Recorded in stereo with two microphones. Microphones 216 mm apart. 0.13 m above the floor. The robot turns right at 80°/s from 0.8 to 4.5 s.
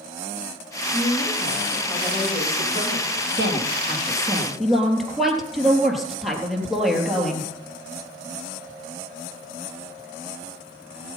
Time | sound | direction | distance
0.9 | a woman speaking | 80° left | 8 m
3.4 | a woman speaking | 90° right | 3 m